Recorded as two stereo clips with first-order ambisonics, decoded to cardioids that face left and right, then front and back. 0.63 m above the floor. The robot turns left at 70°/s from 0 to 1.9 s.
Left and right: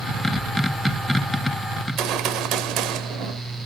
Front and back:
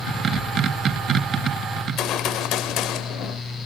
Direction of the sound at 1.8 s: 40° right.